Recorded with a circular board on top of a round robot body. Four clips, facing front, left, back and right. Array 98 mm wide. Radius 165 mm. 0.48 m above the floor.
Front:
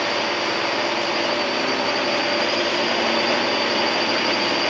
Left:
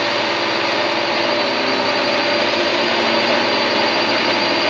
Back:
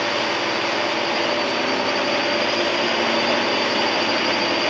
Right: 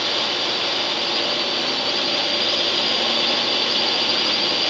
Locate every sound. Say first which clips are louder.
0.0 s a drone: left 7 dB, back 1 dB; 90° left